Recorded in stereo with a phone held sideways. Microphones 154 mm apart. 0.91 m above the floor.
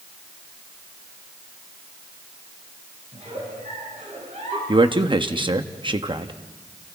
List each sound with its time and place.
3.1 s a giggle: 50° right (ahead or behind), 8.5 m
4.7 s a man speaking: 30° right (ahead or behind), 1.1 m